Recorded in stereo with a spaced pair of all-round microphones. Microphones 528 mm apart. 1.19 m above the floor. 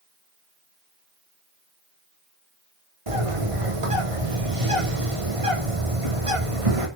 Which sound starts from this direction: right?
A bird, at 3.1 s.